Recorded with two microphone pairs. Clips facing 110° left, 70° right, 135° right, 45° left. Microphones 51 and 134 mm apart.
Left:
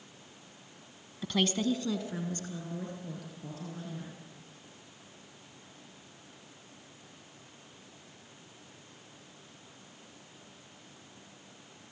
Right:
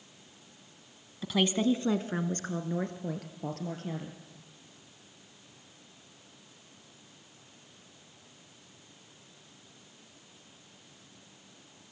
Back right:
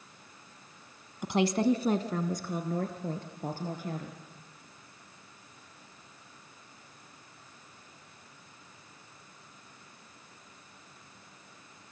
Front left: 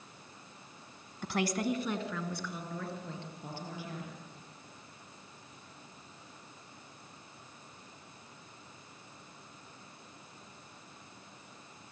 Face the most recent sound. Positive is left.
turn(degrees=-90)